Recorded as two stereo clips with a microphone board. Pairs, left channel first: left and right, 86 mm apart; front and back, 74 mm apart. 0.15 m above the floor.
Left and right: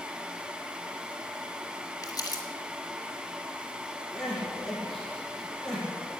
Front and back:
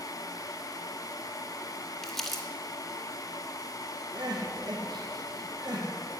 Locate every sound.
2.0 s crumpling: 85° left, 2.5 m
4.1 s crying: 175° left, 4 m